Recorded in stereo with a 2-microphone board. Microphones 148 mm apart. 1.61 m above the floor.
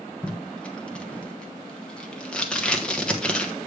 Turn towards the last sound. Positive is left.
turn(degrees=5)  # may be behind; listen again after turning